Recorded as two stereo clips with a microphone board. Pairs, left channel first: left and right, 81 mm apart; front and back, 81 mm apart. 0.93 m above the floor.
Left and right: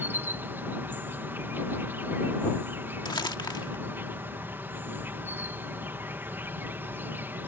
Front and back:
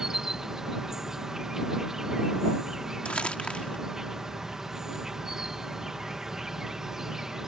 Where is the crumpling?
75° left.